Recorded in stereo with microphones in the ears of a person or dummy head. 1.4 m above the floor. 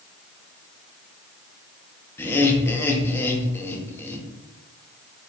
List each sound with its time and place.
2.2 s laughter: 15° left (ahead or behind), 0.8 m